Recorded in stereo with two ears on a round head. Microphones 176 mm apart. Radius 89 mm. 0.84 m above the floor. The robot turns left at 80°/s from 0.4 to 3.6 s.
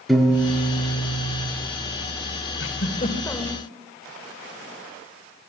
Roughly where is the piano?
Behind.